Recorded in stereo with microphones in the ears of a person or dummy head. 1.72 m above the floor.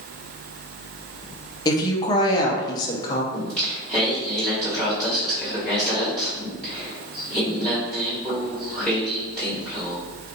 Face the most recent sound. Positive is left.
turn(degrees=5)  # may be behind; listen again after turning